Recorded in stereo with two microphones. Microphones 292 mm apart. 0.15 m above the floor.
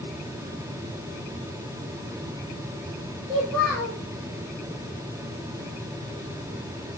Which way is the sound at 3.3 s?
5° right (ahead or behind).